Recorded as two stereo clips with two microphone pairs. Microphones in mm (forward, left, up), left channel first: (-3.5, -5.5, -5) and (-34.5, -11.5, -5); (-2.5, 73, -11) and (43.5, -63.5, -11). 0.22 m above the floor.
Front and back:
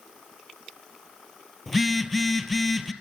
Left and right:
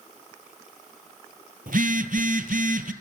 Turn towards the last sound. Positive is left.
turn(degrees=-80)